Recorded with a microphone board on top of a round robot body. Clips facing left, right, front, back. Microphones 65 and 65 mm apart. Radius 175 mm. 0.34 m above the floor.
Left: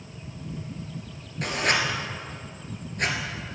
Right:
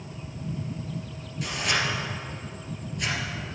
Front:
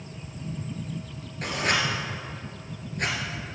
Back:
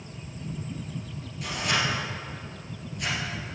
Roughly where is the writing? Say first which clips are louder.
Left 3 dB, front 2 dB; ahead left.